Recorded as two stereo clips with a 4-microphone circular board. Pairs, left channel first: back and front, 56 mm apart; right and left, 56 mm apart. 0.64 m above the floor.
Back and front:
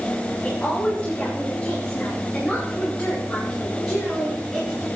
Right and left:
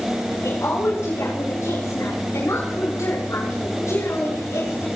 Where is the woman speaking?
105° right, 9.5 m; by 4.9 s 80° right, 8.5 m.